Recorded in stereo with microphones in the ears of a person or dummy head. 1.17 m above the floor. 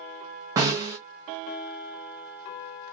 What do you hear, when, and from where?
0.6 s a snare drum: 20° right (ahead or behind), 0.5 m